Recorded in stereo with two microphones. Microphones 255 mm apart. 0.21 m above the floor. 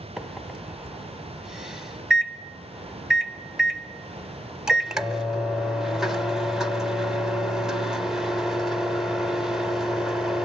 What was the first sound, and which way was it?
A microwave, centre (ahead or behind).